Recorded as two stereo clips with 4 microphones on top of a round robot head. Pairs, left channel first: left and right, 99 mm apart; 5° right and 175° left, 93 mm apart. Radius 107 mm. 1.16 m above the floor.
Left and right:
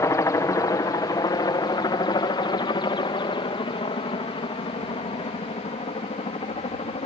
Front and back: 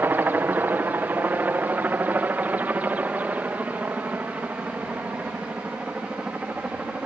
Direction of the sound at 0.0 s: 120° left.